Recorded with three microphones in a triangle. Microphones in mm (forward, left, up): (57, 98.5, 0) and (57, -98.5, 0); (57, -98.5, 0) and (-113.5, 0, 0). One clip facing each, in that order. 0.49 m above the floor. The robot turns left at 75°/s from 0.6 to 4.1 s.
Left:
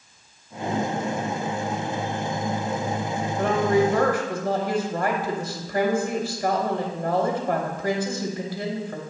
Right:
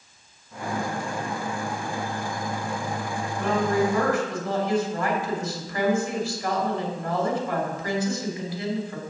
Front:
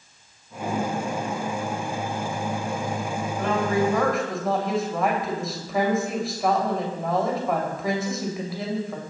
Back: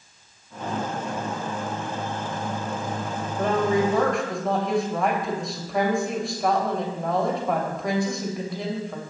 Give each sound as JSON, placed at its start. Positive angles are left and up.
{"t": 3.4, "sound": "a woman speaking", "azimuth_deg": 110, "distance_m": 2.5}